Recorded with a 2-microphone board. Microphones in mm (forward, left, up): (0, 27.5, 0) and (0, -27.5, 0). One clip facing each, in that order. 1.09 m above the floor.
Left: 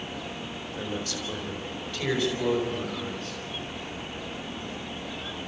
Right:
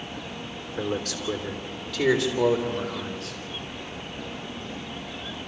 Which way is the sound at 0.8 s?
65° right (ahead or behind).